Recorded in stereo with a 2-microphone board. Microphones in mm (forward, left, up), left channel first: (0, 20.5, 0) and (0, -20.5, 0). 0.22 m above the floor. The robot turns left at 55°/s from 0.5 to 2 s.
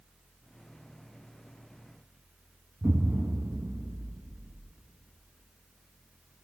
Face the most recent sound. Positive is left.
turn(degrees=-55)  # may be behind; listen again after turning